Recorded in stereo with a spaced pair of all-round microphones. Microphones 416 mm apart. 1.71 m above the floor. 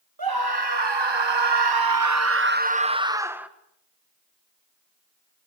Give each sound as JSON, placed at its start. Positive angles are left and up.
{"t": 0.2, "sound": "a scream", "side_deg": -60, "distance_m": 1.7}